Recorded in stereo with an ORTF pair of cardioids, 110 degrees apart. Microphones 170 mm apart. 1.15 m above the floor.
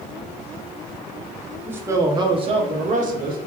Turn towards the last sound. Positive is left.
turn(degrees=-60)